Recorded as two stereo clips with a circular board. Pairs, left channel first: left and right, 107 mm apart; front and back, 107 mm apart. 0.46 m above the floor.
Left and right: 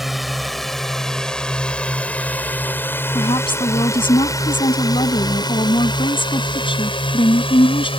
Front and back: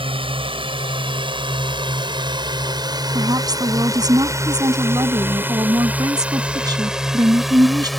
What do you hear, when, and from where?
0.0 s a drone: straight behind; by 8.0 s 90° left
3.1 s a woman speaking: 130° left